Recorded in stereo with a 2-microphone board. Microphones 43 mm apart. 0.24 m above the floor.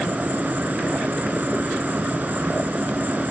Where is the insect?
45° right (ahead or behind).